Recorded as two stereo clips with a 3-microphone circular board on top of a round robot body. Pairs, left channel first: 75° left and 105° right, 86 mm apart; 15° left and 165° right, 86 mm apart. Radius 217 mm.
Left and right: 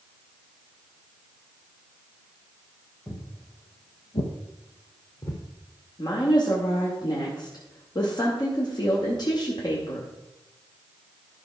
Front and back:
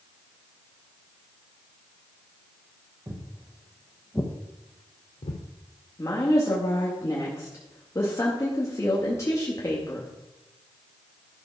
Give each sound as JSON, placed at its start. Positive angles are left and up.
{"t": 3.1, "sound": "footsteps", "azimuth_deg": 140, "distance_m": 2.0}
{"t": 6.0, "sound": "a woman speaking", "azimuth_deg": 65, "distance_m": 2.0}